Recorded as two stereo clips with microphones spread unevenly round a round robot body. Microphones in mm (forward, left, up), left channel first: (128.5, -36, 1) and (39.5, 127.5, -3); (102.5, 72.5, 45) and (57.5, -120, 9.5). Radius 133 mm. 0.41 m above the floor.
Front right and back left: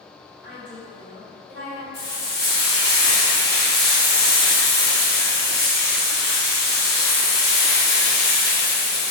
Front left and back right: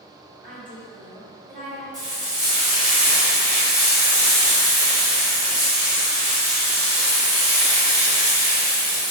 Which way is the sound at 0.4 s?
65° right.